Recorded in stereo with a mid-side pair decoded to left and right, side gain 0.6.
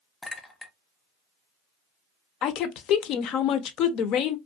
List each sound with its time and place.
0.2 s a clink: 20° left, 0.5 m
2.4 s a woman speaking: 60° left, 0.5 m